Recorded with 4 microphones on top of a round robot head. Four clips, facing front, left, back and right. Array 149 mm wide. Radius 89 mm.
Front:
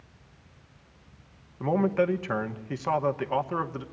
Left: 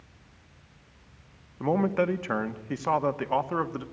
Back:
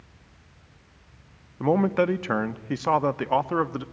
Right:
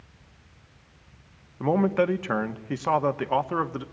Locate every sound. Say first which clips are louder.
1.6 s a man speaking: right 2 dB, back 3 dB; 160° right, 1.0 m